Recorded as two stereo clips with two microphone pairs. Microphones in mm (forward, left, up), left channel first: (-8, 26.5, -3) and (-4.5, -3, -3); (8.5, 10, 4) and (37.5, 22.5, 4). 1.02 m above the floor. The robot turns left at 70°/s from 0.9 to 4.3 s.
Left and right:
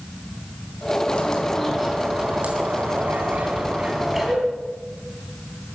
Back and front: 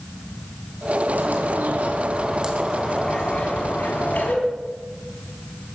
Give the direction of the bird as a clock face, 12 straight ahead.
10 o'clock.